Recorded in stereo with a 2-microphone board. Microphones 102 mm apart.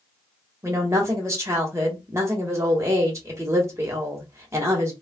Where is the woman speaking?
30° right (ahead or behind), 1.3 m.